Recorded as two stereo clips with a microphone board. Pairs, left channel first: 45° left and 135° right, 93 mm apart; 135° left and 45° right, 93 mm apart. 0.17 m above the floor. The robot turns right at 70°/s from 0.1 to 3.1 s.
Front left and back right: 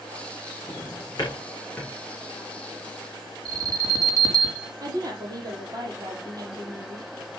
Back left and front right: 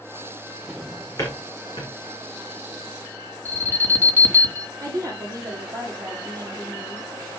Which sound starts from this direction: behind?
An alarm, at 3.5 s.